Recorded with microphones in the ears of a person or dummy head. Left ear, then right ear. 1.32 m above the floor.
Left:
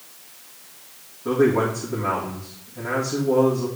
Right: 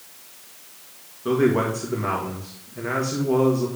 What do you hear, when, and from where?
1.2 s a man speaking: 40° right (ahead or behind), 2 m